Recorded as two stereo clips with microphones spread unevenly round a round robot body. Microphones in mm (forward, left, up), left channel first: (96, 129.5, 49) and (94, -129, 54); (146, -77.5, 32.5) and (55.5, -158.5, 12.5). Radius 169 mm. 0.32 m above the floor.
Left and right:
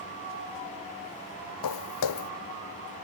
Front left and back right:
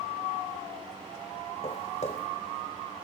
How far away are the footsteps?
About 0.8 m.